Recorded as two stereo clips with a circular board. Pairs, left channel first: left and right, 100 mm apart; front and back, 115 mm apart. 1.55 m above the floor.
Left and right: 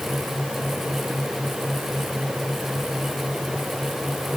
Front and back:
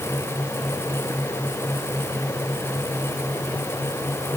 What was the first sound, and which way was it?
Only background noise.